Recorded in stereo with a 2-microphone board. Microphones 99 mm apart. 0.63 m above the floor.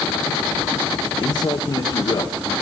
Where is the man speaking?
50° left (ahead or behind), 1.6 m.